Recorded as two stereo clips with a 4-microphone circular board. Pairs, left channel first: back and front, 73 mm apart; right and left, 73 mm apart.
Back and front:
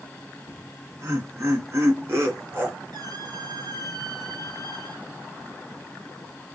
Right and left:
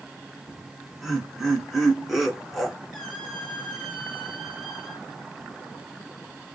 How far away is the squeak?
About 1.7 m.